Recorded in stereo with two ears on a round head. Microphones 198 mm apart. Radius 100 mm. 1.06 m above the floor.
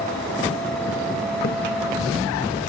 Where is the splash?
50° left (ahead or behind), 0.9 m.